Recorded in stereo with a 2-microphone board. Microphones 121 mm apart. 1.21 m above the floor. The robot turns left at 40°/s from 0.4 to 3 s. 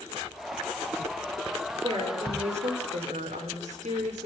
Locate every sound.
1.8 s a woman speaking: 40° right, 4.5 m; by 4.3 s 90° right, 4.5 m